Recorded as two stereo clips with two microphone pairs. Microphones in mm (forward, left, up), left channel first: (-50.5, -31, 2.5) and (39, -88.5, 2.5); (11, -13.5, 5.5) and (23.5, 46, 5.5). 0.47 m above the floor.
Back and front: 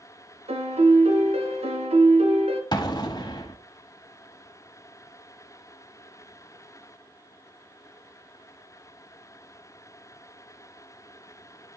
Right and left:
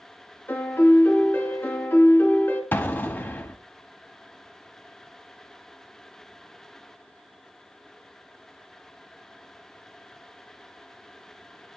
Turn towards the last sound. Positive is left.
turn(degrees=-160)